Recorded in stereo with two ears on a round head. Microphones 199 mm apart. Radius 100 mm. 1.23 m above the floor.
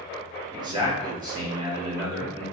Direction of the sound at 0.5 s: 20° right (ahead or behind).